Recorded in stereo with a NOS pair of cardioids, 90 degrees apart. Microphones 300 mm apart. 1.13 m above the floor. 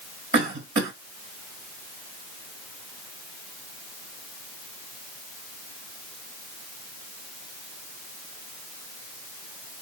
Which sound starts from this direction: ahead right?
A cough, at 0.3 s.